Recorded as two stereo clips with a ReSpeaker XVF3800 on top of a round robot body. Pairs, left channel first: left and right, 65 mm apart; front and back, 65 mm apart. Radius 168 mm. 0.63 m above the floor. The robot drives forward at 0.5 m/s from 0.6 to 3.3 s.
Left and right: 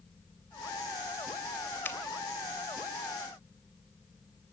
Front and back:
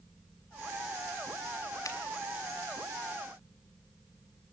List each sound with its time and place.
1.9 s a finger snap: 35° left, 2.5 m